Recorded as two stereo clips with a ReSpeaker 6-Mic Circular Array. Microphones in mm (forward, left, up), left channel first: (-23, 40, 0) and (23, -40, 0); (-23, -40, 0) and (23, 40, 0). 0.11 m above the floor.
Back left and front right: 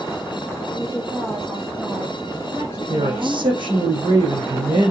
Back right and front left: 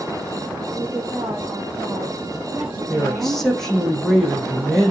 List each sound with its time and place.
0.7 s a woman speaking: 30° left, 4.5 m; by 3.9 s 10° right, 5 m
2.9 s a man speaking: 35° right, 4 m